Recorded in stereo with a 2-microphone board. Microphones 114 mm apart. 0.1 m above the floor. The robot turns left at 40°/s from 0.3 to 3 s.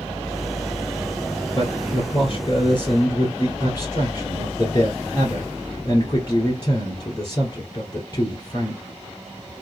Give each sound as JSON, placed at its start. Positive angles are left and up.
{"t": 1.6, "sound": "a man speaking", "azimuth_deg": 125, "distance_m": 1.4}